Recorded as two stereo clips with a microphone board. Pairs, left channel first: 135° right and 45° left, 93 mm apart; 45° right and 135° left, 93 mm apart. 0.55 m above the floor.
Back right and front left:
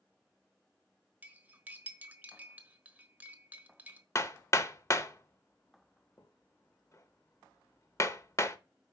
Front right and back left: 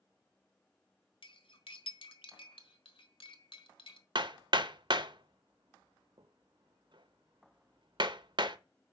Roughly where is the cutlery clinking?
Ahead right.